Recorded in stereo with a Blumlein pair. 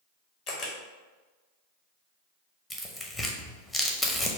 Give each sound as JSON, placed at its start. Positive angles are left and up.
{"t": 0.5, "sound": "a camera shutter", "azimuth_deg": 35, "distance_m": 1.2}
{"t": 2.7, "sound": "tearing paper", "azimuth_deg": 10, "distance_m": 0.8}